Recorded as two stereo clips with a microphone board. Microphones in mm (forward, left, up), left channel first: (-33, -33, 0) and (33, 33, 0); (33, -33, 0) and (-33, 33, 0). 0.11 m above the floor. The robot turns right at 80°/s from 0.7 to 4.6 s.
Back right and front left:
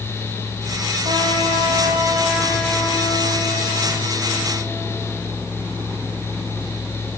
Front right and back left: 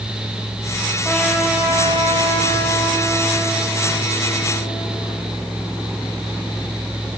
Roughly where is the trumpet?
Ahead left.